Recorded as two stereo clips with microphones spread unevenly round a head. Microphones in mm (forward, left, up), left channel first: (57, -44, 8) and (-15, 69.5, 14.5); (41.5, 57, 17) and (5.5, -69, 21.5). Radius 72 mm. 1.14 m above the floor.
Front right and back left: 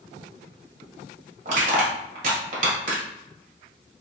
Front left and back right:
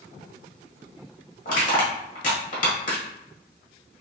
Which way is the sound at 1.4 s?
105° left.